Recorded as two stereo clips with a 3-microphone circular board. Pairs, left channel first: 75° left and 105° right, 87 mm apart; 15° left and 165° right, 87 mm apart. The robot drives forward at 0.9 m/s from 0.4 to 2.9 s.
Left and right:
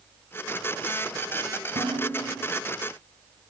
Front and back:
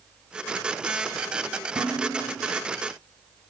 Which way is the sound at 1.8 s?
105° right.